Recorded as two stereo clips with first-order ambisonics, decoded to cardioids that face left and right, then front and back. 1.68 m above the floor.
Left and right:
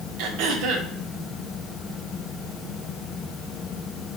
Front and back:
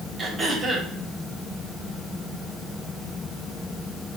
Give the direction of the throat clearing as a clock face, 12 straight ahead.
4 o'clock.